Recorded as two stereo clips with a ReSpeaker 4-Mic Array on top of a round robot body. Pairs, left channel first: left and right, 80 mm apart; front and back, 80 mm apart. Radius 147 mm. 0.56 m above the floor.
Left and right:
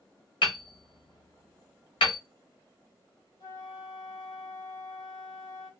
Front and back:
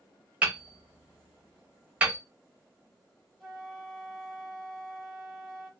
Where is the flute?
85° left, 2 m.